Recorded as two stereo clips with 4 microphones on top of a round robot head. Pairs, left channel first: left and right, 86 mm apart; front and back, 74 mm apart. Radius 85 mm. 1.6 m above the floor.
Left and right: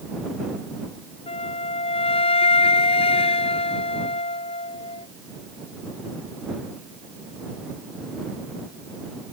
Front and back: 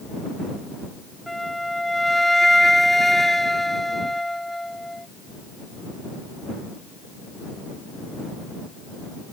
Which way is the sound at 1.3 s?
85° left.